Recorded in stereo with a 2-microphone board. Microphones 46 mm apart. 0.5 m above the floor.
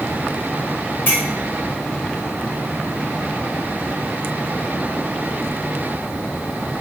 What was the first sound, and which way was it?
A clink, 55° left (ahead or behind).